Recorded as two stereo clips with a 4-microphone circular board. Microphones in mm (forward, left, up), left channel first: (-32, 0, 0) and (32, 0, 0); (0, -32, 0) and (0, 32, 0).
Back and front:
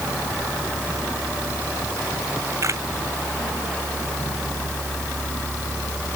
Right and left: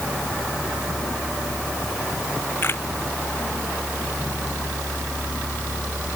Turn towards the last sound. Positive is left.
turn(degrees=-40)